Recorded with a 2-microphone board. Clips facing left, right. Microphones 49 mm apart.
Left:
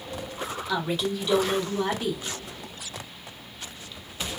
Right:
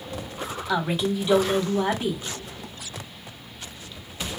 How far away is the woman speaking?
About 1.1 m.